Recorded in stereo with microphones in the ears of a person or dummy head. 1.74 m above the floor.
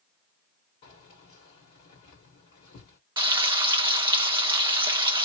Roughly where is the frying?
Right.